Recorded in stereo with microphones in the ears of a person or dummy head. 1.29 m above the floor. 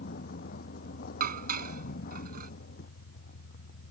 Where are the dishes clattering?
50° right (ahead or behind).